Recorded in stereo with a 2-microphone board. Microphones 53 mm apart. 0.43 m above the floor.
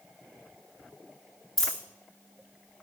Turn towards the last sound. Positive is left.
turn(degrees=5)  # may be behind; listen again after turning